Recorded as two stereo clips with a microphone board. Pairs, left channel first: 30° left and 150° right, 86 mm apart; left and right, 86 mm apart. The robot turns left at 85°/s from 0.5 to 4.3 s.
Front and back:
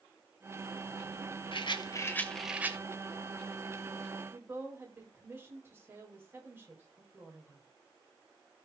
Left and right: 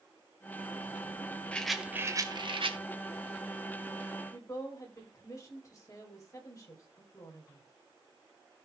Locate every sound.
1.5 s a rattle: 15° left, 1.4 m; by 2.8 s 90° right, 1.4 m
4.3 s a woman speaking: 145° left, 5 m